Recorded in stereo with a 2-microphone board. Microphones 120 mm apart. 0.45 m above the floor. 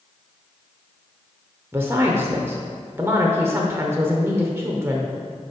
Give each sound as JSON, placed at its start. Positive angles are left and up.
{"t": 1.7, "sound": "a woman speaking", "side_deg": -20, "distance_m": 0.9}